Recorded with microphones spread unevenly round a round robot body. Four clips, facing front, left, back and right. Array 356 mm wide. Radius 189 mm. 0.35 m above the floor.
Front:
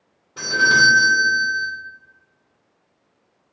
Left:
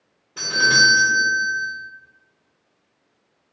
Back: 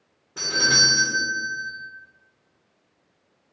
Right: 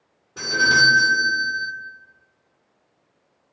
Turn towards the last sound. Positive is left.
turn(degrees=-135)